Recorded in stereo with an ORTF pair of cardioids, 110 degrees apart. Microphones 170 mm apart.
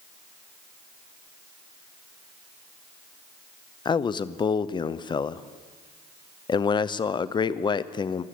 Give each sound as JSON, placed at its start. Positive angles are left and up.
{"t": 3.9, "sound": "a man speaking", "azimuth_deg": 25, "distance_m": 0.6}